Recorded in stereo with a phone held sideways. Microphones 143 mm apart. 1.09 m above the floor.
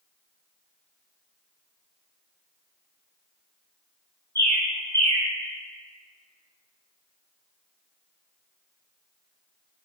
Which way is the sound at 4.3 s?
20° left (ahead or behind).